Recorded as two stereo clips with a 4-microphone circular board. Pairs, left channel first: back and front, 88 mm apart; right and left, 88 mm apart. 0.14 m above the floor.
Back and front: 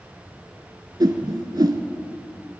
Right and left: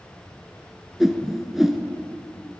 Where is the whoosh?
5° left, 0.6 m.